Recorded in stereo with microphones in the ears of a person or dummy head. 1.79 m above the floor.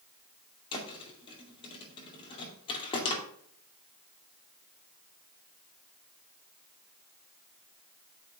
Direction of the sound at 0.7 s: 25° left (ahead or behind).